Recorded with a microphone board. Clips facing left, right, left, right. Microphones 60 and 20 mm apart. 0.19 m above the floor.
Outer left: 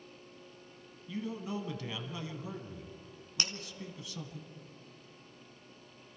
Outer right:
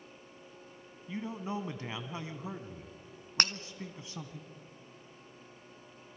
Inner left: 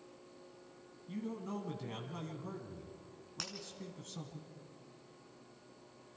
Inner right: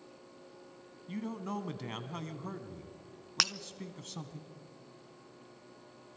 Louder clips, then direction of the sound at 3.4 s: Outer right 7 dB, inner right 14 dB; 60° right (ahead or behind).